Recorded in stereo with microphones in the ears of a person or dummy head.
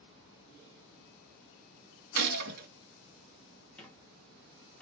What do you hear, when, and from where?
2.1 s a gunshot: 55° right (ahead or behind), 1.8 m
3.8 s a squeak: 5° left (ahead or behind), 1.2 m